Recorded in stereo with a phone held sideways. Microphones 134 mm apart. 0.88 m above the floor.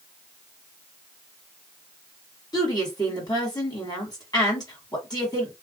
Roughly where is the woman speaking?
Left.